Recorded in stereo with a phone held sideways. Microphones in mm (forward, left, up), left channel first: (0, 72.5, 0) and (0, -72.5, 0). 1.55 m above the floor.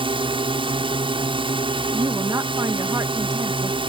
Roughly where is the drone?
Right.